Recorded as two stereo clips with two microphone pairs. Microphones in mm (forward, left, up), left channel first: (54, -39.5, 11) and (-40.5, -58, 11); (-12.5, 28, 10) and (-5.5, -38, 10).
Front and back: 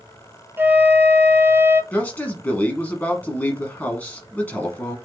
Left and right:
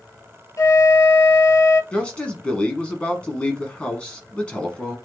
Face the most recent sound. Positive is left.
turn(degrees=55)